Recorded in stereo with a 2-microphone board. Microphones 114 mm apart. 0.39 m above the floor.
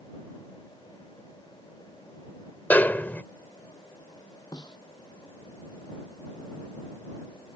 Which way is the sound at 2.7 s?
15° left (ahead or behind).